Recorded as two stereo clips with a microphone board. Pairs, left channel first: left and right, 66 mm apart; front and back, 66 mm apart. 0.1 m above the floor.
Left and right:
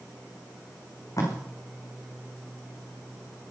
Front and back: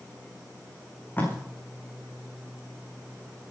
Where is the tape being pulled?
60° left, 6.5 m.